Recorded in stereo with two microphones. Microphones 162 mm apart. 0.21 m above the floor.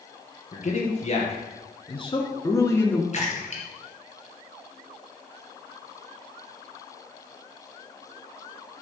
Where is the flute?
I don't hear a flute.